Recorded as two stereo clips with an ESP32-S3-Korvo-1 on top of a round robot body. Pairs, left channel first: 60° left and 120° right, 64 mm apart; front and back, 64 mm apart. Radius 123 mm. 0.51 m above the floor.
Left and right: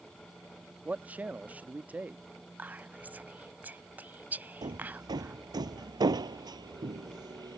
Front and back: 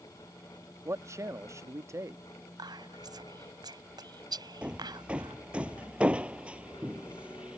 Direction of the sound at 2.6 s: 175° left.